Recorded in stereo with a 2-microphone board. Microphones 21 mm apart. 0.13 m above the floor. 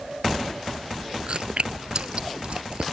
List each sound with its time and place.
1.3 s chewing: 55° right (ahead or behind)